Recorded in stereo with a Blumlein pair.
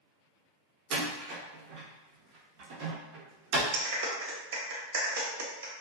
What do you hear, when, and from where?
0.9 s a door slam: 40° right, 0.6 m
3.7 s a clap: 50° right, 0.7 m